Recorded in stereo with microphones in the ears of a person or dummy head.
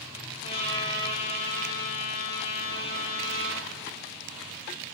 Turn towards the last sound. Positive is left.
turn(degrees=35)  # may be behind; listen again after turning